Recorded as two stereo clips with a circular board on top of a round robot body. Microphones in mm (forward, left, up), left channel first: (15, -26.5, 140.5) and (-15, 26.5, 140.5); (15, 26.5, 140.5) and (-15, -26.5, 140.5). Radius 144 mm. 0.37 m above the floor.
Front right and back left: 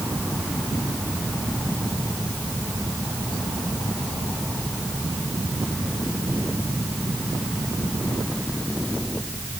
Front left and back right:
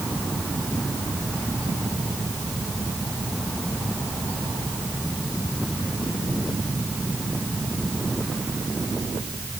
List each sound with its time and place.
Only background noise.